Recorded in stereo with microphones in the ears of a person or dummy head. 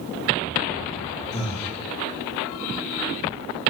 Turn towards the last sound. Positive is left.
turn(degrees=35)  # may be behind; listen again after turning